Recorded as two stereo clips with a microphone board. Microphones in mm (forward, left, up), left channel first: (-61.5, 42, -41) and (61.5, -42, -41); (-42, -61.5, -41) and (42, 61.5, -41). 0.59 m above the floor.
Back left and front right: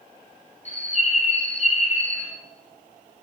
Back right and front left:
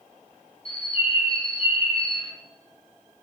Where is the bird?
175° right, 3 m.